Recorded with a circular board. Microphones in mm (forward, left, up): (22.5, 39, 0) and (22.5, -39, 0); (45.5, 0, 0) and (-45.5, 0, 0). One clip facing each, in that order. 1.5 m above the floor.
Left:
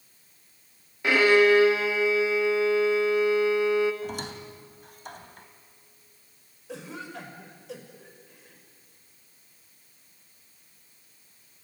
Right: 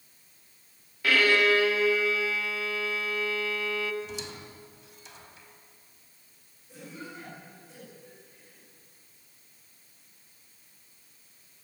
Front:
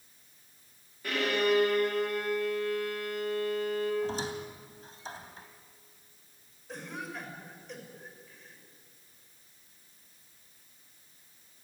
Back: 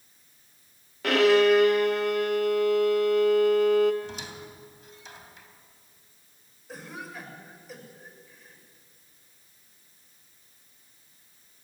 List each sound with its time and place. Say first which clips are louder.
1.0 s a violin: left 4 dB, back 9 dB; 160° left, 2 m
4.0 s a squeak: left 5 dB, front 5 dB; 55° left, 2.5 m
6.7 s a cough: left 5 dB, even; 95° left, 6.5 m